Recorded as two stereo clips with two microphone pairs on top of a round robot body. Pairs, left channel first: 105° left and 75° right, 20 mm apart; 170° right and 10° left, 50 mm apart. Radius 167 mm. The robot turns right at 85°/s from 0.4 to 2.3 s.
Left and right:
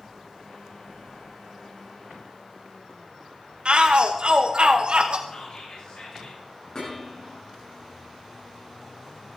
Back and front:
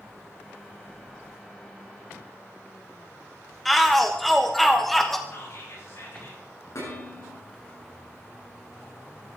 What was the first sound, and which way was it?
A shout, 80° right.